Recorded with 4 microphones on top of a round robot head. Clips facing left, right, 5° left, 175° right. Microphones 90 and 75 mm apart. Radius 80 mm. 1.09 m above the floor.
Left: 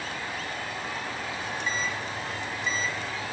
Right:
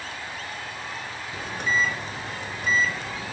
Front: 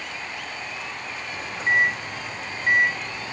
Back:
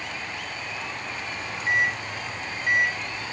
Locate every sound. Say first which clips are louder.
1.3 s a microwave: right 8 dB, front 3 dB; 55° right, 0.6 m